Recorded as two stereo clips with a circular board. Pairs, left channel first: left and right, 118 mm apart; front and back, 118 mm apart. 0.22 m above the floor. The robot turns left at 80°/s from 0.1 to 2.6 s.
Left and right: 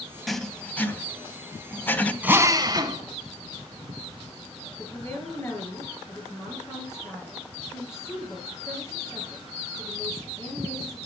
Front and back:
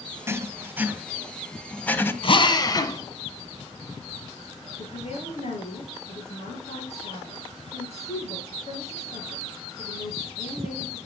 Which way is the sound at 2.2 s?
15° right.